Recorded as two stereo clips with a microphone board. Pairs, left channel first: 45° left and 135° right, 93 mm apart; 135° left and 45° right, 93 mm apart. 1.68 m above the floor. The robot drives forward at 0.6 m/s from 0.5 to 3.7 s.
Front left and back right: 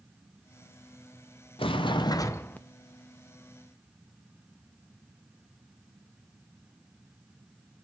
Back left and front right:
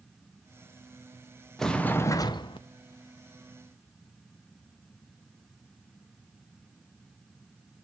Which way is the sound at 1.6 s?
50° left.